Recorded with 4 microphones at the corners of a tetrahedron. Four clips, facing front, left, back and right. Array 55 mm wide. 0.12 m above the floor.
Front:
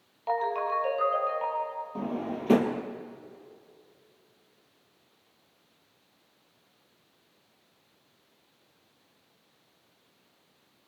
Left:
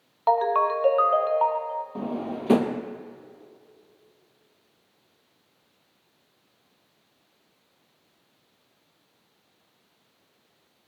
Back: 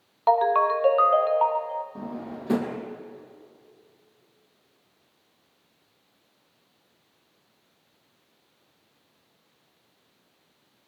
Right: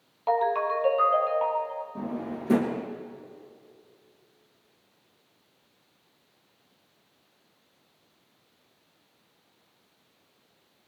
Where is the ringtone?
145° left, 1.7 m.